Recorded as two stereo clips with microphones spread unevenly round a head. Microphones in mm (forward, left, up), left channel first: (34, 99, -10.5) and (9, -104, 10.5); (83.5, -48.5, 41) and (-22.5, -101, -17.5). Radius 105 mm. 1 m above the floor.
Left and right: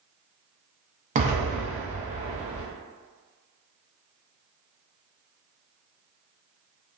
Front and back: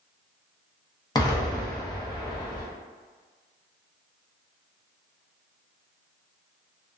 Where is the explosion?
40° right, 0.7 m.